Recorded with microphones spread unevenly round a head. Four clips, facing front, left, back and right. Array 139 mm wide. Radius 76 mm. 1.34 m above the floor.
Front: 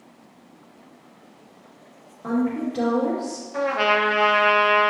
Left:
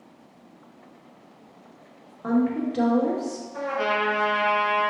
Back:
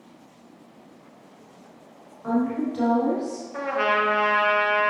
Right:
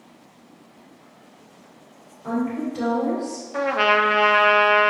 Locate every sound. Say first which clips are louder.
2.2 s a woman speaking: left 2 dB, even; 65° left, 2.5 m
3.5 s a trumpet: right 6 dB, front 2 dB; 65° right, 1.0 m